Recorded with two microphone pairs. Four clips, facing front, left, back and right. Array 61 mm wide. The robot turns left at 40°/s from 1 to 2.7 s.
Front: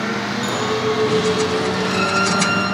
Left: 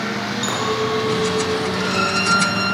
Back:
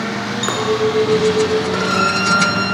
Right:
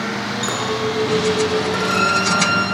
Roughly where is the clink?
Behind.